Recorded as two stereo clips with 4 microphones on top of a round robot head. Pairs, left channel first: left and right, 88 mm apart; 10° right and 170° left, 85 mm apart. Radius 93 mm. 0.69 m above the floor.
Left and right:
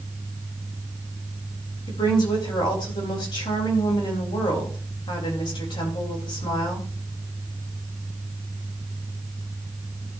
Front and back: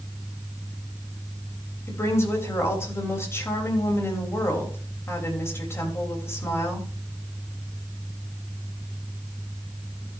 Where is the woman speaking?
50° left, 3.5 m.